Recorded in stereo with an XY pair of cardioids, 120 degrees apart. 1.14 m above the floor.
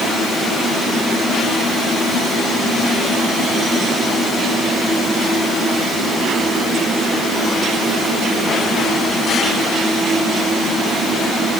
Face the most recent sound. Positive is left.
No sound to turn to.